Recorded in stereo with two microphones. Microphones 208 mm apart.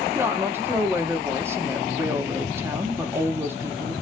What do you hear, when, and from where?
0.1 s a woman speaking: 10° right (ahead or behind), 0.9 m